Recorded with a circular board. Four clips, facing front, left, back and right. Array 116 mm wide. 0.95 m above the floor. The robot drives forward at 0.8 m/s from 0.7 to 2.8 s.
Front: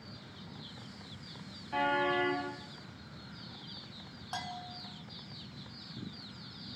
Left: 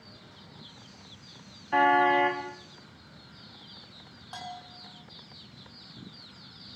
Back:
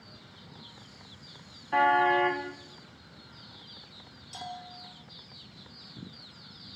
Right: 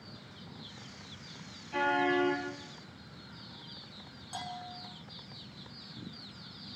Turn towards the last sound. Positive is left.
turn(degrees=15)